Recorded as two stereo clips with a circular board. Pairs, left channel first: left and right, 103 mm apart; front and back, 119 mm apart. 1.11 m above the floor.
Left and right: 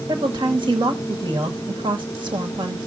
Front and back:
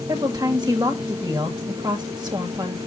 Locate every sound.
0.1 s a woman speaking: 125° right, 1.9 m